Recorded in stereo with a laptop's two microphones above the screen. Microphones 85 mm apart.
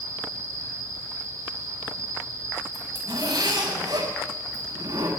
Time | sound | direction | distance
0.0 | an insect | 35° right (ahead or behind) | 1.1 m
2.7 | a zipper | 55° right (ahead or behind) | 3.5 m